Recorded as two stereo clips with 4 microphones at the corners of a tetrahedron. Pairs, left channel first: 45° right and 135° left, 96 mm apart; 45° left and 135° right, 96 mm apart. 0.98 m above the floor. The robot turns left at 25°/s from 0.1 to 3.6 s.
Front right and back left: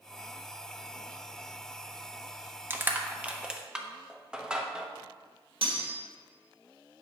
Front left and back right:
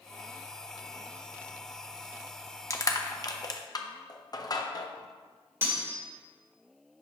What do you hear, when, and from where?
2.7 s crushing: 80° left, 0.7 m; by 4.9 s 55° left, 0.7 m
5.6 s cutlery clinking: 160° left, 1.8 m